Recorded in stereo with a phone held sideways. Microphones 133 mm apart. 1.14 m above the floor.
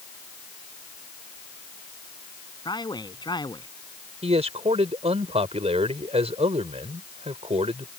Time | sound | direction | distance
2.6 | a man speaking | 35° left (ahead or behind) | ?
4.2 | a man speaking | 55° right (ahead or behind) | ?